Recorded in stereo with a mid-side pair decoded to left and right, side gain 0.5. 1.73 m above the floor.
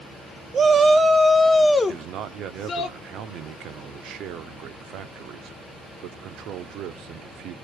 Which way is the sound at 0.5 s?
45° right.